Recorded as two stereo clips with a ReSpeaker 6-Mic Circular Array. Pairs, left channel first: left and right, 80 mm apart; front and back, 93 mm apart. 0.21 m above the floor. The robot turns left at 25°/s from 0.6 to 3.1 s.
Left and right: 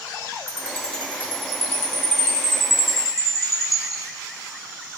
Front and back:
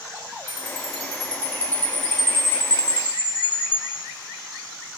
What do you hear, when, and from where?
0.5 s a chime: 170° left, 1.2 m; by 4.0 s 110° left, 1.2 m